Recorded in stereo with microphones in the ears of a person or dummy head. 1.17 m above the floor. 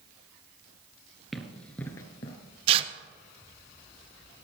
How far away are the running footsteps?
About 1.2 m.